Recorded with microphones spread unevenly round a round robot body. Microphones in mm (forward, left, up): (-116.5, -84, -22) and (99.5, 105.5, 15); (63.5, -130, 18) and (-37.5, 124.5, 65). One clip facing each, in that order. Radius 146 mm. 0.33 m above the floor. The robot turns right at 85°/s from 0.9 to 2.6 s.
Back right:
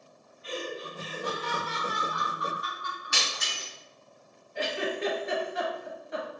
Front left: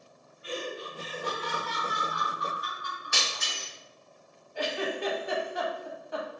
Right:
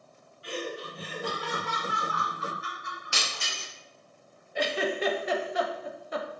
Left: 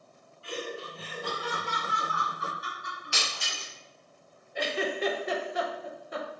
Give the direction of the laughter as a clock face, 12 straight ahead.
1 o'clock.